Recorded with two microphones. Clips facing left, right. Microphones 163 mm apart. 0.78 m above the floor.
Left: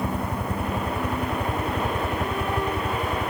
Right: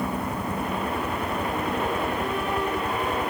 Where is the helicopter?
65° left (ahead or behind).